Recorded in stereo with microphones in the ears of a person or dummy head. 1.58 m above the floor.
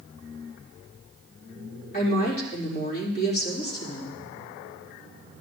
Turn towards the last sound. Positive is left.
turn(degrees=50)  # may be behind; listen again after turning